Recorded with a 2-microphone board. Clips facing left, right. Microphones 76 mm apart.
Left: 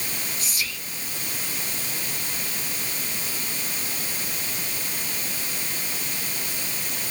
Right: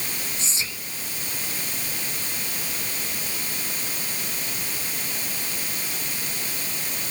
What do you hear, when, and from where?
0.4 s whispering: 25° right (ahead or behind), 1.3 m